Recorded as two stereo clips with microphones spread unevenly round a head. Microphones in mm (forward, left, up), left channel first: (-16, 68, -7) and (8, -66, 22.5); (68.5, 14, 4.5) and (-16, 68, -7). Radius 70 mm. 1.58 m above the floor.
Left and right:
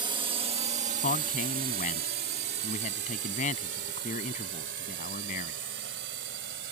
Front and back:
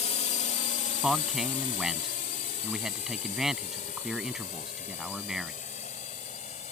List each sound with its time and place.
0.0 s a drone: 15° right; by 6.7 s 80° right
1.0 s a man speaking: 60° left